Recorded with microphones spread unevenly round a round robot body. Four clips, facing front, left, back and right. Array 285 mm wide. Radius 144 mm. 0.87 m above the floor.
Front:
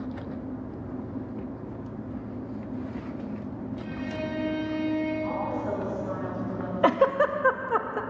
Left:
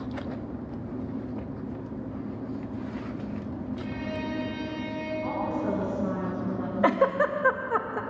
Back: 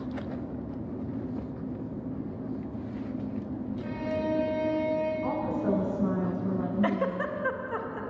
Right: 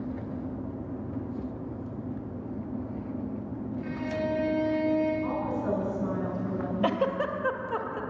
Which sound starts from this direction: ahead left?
A giggle, at 6.8 s.